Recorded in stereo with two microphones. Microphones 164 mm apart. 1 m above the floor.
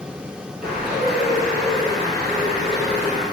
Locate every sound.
0.6 s a bird: 65° right (ahead or behind), 3 m